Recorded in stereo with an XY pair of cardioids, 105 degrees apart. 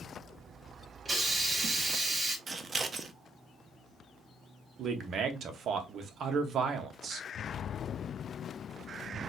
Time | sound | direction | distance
1.1 | a hiss | 20° right | 1.6 m
2.5 | scissors | 35° right | 0.7 m
4.8 | a man speaking | 60° right | 0.9 m